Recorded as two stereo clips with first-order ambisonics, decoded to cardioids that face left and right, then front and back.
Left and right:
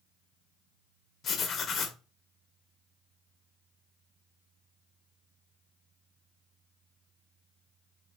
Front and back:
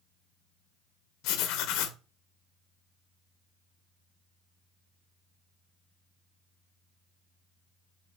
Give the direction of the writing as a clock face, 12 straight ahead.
11 o'clock.